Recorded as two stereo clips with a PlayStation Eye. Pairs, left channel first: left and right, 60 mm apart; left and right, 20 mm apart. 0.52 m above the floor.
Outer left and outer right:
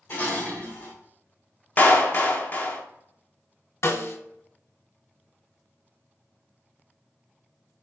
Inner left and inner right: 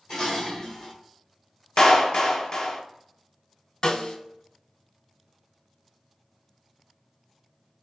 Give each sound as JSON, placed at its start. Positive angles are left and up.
{"t": 0.1, "sound": "dishes clattering", "side_deg": 35, "distance_m": 1.3}
{"t": 1.8, "sound": "a clap", "side_deg": 30, "distance_m": 0.6}
{"t": 3.8, "sound": "a snare drum", "side_deg": 50, "distance_m": 0.5}